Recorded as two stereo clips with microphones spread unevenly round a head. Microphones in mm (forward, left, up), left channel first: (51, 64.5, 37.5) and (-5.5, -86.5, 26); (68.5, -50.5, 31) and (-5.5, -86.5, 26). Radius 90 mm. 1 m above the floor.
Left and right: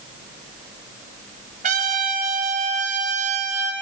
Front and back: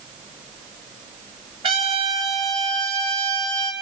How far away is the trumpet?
About 7.5 m.